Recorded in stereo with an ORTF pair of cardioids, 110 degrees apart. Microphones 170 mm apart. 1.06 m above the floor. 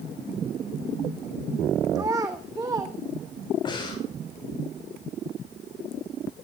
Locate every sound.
1.9 s a child speaking: 20° right, 1.0 m
3.6 s breathing: 25° left, 5 m